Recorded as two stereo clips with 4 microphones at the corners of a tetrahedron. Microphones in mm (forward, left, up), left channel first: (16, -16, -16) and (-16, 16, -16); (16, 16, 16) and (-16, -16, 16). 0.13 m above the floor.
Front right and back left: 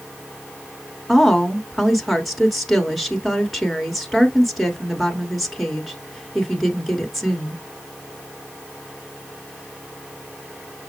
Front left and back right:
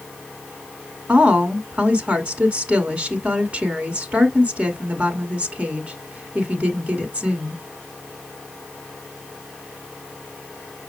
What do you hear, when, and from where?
1.1 s a woman speaking: 130° right, 1.3 m